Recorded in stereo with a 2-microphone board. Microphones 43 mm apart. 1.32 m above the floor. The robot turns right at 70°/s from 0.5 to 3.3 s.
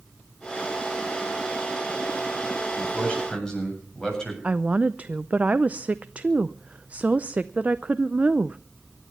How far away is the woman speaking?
About 0.5 m.